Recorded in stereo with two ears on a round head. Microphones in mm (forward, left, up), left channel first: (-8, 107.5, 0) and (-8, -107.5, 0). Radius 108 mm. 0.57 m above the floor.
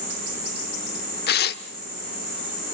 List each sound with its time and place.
1.3 s tearing paper: 45° left (ahead or behind), 1.1 m